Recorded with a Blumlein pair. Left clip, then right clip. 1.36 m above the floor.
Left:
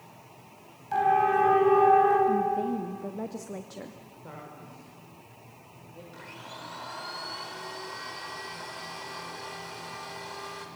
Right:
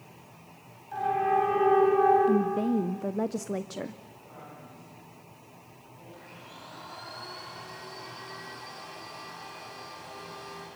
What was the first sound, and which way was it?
A siren, 65° left.